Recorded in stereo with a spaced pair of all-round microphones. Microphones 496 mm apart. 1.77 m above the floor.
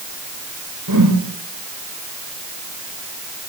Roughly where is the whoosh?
Right.